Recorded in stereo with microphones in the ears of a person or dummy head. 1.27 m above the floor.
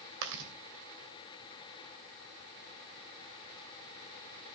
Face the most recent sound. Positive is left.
turn(degrees=-70)  # may be behind; listen again after turning